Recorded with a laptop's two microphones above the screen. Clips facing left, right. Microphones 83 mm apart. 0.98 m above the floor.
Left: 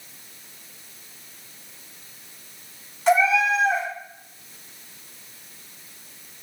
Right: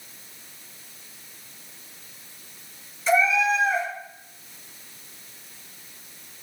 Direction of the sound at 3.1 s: 65° left (ahead or behind).